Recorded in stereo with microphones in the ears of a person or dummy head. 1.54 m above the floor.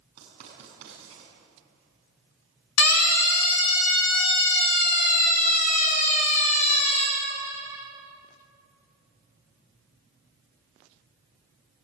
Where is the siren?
80° left, 3.5 m; by 7.1 s 35° left (ahead or behind), 5.5 m.